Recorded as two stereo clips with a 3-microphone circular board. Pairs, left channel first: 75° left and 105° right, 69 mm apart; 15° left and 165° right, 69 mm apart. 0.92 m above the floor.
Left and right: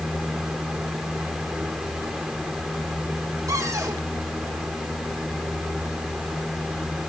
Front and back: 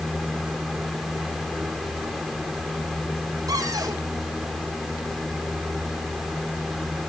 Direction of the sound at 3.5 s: 140° right.